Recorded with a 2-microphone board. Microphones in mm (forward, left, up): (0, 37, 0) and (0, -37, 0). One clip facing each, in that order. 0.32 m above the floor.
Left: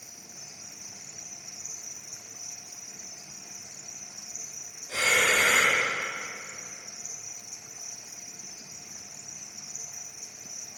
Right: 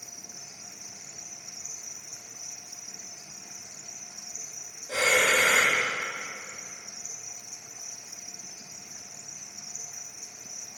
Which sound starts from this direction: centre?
An insect, at 0.0 s.